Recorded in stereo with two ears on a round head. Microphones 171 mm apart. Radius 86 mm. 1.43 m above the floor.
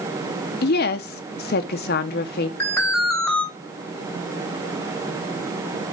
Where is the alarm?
10° left (ahead or behind), 3 m.